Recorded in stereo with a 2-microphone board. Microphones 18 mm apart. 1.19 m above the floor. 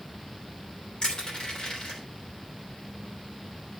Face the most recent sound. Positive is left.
turn(degrees=50)  # may be behind; listen again after turning